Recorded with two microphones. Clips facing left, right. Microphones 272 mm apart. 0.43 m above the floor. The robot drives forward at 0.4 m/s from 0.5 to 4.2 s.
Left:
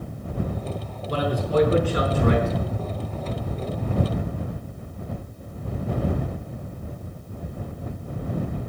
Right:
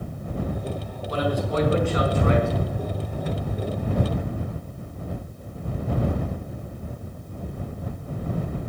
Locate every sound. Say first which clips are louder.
1.1 s a man speaking: left 1 dB; 35° left (ahead or behind), 5 m; by 2.5 s 40° left (ahead or behind), 5 m